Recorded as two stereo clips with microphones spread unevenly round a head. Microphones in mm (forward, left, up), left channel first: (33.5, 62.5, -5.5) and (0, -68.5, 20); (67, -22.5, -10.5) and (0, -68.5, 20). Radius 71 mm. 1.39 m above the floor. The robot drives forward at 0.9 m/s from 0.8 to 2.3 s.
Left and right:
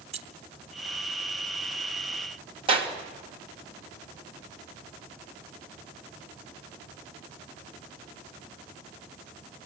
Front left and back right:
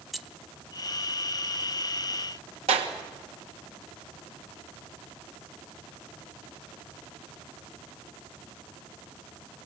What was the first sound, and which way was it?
Keys jangling, 60° right.